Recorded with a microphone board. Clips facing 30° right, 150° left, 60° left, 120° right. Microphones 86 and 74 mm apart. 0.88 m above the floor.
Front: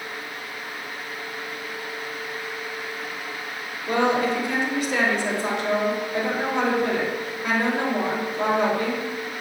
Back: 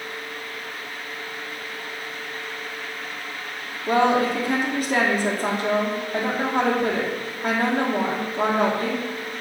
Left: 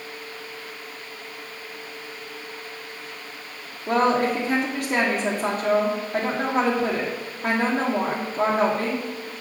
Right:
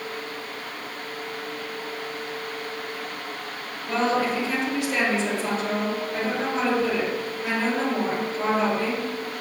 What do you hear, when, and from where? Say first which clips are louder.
3.9 s a woman speaking: back 2 dB, left 3 dB; 105° left, 2.5 m